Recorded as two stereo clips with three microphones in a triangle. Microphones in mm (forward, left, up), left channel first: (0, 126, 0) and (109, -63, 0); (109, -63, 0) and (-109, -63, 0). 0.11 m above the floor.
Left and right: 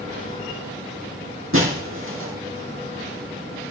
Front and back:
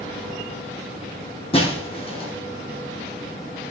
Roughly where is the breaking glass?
Ahead right.